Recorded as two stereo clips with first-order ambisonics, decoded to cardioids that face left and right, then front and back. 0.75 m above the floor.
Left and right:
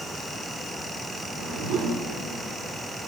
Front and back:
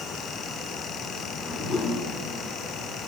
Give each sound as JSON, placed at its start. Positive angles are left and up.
{"t": 1.2, "sound": "a whoosh", "azimuth_deg": -70, "distance_m": 2.5}